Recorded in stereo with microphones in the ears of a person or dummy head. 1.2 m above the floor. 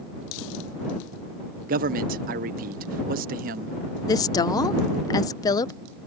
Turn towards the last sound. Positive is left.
turn(degrees=20)  # may be behind; listen again after turning